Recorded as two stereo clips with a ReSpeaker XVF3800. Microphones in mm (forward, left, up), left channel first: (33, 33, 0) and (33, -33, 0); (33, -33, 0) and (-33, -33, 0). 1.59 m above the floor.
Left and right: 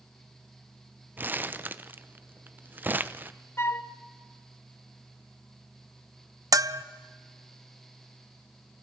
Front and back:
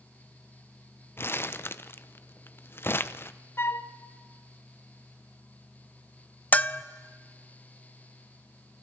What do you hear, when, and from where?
1.2 s crumpling: 40° right, 0.7 m
3.6 s a flute: 45° left, 1.0 m
6.5 s a bell: 65° right, 0.6 m